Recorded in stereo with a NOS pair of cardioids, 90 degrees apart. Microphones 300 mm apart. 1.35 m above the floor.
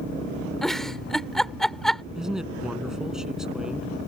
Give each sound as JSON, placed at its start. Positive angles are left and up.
{"t": 0.6, "sound": "a giggle", "azimuth_deg": 0}
{"t": 2.1, "sound": "a man speaking", "azimuth_deg": 0}